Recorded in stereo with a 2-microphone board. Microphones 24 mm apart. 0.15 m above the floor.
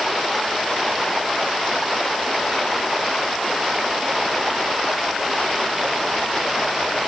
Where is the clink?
I don't hear a clink.